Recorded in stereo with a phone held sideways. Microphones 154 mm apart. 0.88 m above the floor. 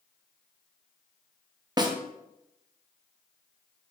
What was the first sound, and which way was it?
A snare drum, 25° right (ahead or behind).